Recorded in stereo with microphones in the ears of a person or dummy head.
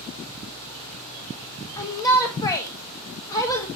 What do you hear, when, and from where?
1.8 s a shout: 25° left (ahead or behind), 1.1 m